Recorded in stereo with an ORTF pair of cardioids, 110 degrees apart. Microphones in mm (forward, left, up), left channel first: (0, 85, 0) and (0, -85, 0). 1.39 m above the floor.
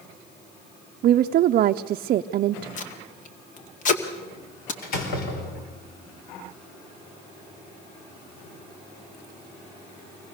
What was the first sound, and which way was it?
A woman speaking, 55° right.